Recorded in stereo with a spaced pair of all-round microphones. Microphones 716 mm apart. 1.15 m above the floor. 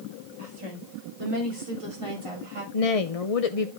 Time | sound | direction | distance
0.4 | a woman speaking | 45° right (ahead or behind) | 4.5 m
2.7 | a woman speaking | 55° left (ahead or behind) | 0.8 m